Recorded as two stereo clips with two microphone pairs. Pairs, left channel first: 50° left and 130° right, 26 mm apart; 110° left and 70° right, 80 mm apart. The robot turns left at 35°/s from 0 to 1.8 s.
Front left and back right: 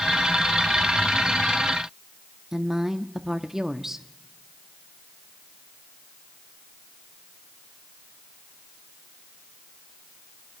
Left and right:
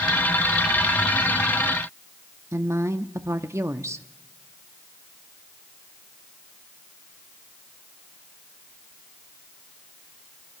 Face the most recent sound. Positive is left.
turn(degrees=-70)